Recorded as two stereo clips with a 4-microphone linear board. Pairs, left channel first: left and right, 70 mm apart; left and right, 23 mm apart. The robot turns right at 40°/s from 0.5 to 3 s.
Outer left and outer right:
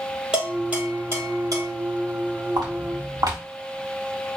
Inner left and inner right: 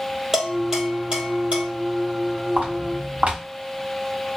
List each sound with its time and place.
0.3 s dishes clattering: 15° right (ahead or behind), 3.5 m; by 1.6 s 55° right (ahead or behind), 3.5 m
2.6 s footsteps: 75° right (ahead or behind), 3.5 m; by 3.4 s 60° right (ahead or behind), 3.5 m